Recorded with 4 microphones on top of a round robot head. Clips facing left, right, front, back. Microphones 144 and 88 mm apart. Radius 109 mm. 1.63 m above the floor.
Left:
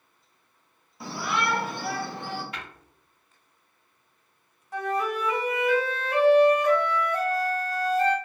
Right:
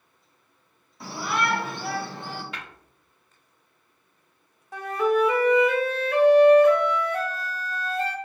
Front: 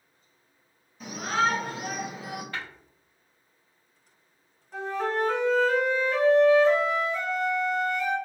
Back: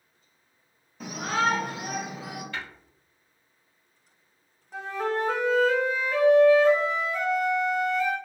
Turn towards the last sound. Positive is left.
turn(degrees=-100)